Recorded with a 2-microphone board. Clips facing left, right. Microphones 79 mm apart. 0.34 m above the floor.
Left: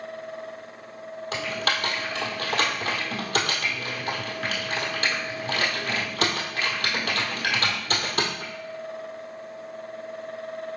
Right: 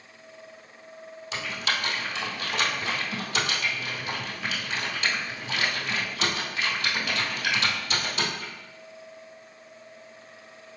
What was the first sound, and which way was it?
Typing on a keyboard, 50° left (ahead or behind).